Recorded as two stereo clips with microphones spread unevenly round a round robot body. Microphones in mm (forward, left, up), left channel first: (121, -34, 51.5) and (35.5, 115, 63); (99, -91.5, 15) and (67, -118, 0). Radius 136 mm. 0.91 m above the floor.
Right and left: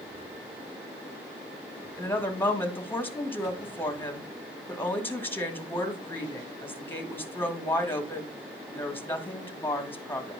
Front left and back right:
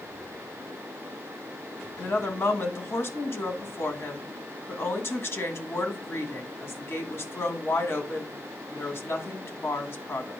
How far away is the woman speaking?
About 1.7 m.